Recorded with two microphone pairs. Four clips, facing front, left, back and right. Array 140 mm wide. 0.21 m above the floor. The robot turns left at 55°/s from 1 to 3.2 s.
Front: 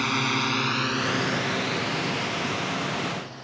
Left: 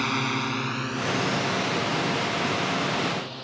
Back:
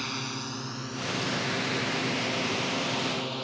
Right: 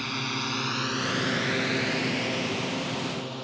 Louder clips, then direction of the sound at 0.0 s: Left 5 dB, front 10 dB; 40° left.